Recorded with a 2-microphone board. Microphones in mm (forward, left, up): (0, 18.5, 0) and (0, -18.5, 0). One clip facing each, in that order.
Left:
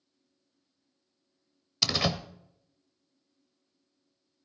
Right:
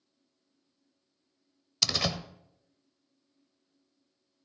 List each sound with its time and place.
1.8 s a door slam: 10° left (ahead or behind), 0.8 m